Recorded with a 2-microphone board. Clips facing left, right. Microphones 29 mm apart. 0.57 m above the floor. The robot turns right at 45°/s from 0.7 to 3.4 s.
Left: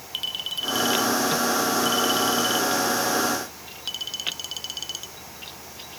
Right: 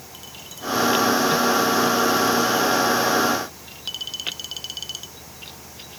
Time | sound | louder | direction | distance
0.1 | a clink | left 13 dB | 65° left (ahead or behind) | ?